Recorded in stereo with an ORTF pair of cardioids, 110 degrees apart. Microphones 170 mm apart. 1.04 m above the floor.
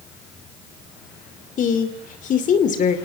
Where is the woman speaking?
50° left, 2.5 m.